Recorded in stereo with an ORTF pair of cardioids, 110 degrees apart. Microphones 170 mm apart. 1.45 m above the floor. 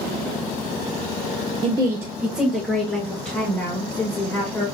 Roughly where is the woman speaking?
Ahead right.